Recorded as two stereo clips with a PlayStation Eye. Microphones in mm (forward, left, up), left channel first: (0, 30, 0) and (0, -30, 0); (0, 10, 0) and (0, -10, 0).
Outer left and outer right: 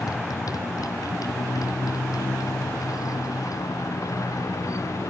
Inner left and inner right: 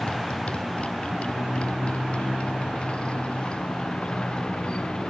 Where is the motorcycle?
90° left; by 5.1 s 55° left (ahead or behind).